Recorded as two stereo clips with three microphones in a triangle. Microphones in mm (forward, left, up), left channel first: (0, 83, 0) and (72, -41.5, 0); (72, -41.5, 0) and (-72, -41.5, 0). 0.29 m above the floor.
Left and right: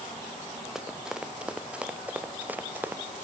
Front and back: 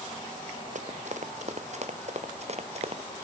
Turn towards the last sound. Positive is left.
turn(degrees=-135)